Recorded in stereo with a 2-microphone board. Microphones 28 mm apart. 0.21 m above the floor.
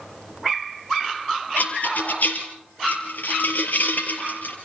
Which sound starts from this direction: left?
A rattle, at 1.6 s.